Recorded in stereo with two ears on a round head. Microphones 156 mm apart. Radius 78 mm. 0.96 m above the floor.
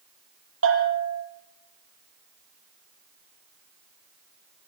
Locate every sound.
0.6 s a bell: 85° right, 7 m